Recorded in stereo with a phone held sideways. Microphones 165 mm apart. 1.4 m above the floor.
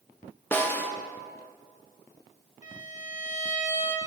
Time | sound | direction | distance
0.5 | a snare drum | 10° left (ahead or behind) | 0.7 m
2.6 | a violin | 50° left (ahead or behind) | 1.0 m